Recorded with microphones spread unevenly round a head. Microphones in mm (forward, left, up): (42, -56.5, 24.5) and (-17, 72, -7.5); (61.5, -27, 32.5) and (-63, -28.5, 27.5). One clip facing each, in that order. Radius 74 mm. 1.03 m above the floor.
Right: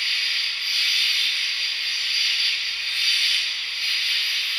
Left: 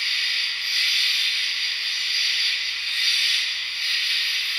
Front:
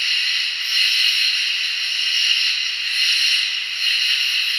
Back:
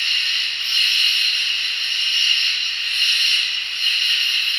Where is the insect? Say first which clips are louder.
Even, front 1 dB; 110° right, 1.9 m.